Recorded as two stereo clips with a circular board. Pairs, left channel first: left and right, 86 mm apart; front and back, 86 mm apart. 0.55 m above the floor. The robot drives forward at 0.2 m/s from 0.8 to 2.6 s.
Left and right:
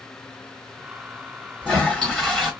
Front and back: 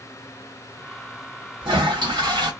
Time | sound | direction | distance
1.6 | a toilet flushing | 170° left | 1.2 m